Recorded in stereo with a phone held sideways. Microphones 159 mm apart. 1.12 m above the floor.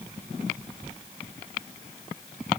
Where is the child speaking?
No child speaking in this recording.